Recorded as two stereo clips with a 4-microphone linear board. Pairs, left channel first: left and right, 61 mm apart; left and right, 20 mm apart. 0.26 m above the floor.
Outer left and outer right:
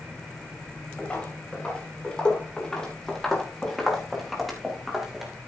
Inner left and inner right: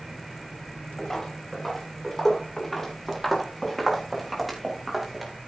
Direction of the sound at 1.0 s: 20° left (ahead or behind).